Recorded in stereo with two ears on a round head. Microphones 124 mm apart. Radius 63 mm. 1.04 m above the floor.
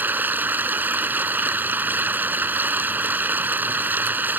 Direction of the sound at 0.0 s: 15° right (ahead or behind).